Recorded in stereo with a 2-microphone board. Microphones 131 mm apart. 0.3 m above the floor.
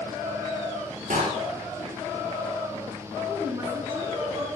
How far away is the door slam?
About 4 m.